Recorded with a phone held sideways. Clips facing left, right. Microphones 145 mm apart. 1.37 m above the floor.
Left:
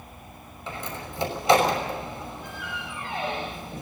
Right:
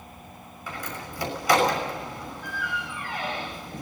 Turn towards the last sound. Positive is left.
turn(degrees=25)  # may be behind; listen again after turning